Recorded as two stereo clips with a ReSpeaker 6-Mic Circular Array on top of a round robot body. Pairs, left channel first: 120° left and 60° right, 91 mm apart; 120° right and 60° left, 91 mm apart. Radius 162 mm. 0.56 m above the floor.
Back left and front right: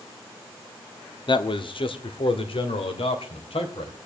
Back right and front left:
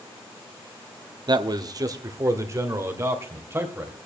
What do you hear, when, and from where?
1.3 s a man speaking: 95° left, 1.4 m; by 4.0 s 125° left, 3.5 m